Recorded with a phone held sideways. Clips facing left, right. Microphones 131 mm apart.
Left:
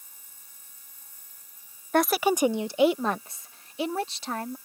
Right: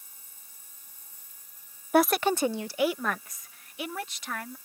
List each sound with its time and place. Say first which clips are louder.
1.9 s a woman speaking: even; 10° right (ahead or behind); by 4.5 s 30° left (ahead or behind)